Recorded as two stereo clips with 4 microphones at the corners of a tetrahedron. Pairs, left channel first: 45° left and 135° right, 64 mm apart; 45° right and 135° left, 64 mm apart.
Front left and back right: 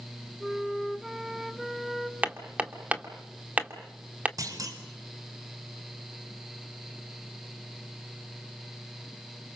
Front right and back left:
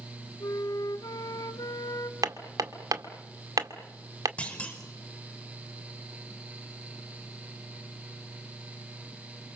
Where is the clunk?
115° right, 4.5 m.